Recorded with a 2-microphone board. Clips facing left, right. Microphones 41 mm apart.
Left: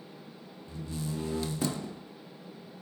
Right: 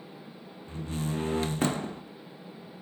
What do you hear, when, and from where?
0.7 s a door slam: 45° right (ahead or behind), 0.7 m